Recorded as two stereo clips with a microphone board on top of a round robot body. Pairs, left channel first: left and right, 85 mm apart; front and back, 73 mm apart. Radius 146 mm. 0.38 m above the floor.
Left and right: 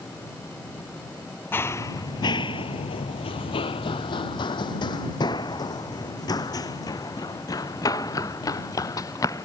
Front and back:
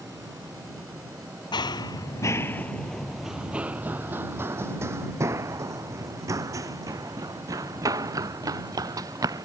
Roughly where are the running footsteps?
Ahead left.